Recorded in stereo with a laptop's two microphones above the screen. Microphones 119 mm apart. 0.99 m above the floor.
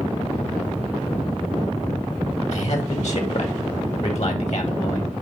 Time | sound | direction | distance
2.5 | a man speaking | 65° left (ahead or behind) | 2 m